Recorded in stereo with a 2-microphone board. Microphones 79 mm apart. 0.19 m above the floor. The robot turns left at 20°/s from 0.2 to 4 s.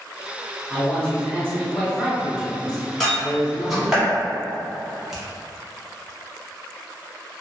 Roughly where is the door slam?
Centre.